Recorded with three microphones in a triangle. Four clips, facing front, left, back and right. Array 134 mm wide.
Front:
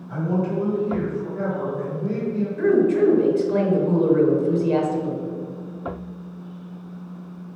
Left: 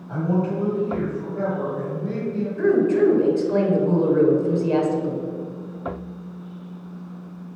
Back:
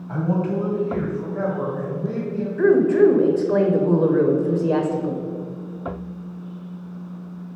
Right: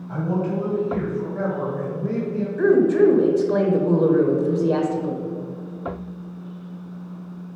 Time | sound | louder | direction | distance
0.1 | a man speaking | left 1 dB, back 1 dB | 175° left | 2.5 m
2.6 | a woman speaking | right 2 dB, back 3 dB | 155° right | 1.1 m